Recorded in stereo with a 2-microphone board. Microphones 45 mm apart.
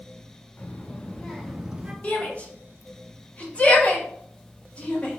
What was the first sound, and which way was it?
A child speaking, 45° left (ahead or behind).